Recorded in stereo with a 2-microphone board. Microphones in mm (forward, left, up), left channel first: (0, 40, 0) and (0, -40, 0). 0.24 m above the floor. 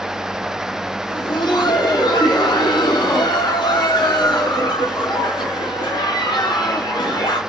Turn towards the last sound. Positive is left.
turn(degrees=65)  # may be behind; listen again after turning